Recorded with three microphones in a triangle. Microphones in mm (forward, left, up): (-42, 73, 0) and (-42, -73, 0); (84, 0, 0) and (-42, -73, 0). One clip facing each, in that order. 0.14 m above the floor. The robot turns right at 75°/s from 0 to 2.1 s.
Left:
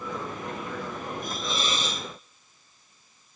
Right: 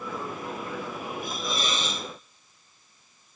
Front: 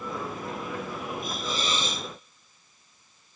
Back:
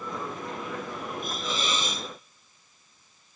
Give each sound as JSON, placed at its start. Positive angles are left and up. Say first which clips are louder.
{"t": 1.2, "sound": "a hiss", "louder": "right 1 dB, even", "azimuth_deg": 20, "distance_m": 0.9}